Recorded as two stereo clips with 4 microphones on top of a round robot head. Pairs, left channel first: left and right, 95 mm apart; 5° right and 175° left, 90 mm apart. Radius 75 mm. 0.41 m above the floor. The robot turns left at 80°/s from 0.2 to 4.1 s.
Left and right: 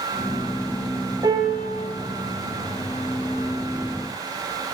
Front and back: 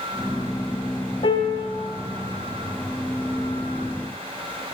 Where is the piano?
35° right, 0.6 m; by 1.7 s 70° right, 0.6 m.